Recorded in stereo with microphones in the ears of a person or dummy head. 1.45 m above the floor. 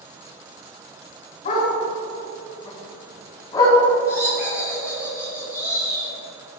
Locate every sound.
1.4 s a dog barking: 40° left (ahead or behind), 4 m; by 3.8 s 20° left (ahead or behind), 5 m
4.1 s laughter: 10° right (ahead or behind), 2 m